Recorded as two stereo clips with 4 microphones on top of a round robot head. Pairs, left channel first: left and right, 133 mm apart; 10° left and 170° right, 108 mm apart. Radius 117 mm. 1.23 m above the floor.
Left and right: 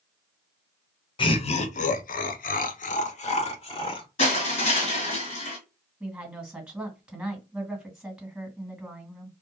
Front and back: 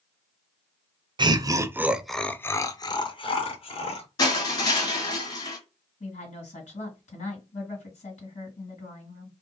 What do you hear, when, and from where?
1.2 s laughter: 145° left, 0.7 m; by 4.1 s 40° left, 1.3 m
4.2 s crushing: 55° left, 1.8 m
6.0 s a woman speaking: 10° right, 1.6 m